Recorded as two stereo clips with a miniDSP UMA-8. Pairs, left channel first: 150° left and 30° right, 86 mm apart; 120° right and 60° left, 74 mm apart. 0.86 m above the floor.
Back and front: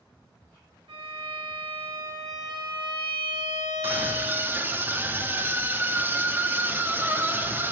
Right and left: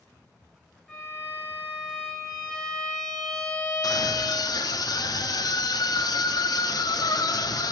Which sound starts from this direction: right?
A scream, at 3.8 s.